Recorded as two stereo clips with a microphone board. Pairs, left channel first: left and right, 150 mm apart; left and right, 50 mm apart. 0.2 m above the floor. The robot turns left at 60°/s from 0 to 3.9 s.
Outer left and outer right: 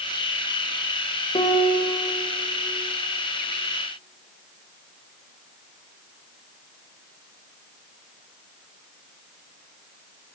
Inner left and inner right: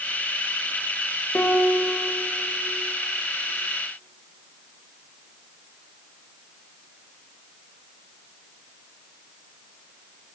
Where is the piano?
140° left, 1.7 m; by 2.0 s 105° left, 1.7 m.